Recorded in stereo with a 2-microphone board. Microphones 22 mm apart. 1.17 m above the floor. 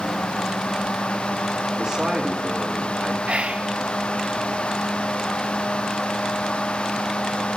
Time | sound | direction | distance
1.8 | a man speaking | 35° right (ahead or behind) | 2.5 m
3.2 | whispering | 60° right (ahead or behind) | 0.5 m